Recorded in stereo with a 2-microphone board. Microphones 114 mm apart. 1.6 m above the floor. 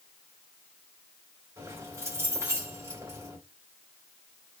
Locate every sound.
1.6 s keys jangling: 25° right (ahead or behind), 2.5 m